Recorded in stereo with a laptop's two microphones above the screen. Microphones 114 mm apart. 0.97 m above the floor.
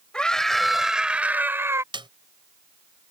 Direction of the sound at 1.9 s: 45° right (ahead or behind).